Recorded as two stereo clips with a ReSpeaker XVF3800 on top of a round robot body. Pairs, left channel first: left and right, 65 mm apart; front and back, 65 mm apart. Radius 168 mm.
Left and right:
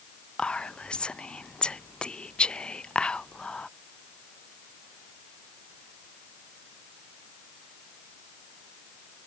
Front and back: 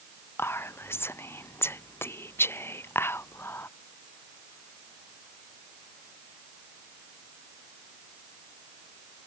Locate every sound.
0.4 s whispering: 20° left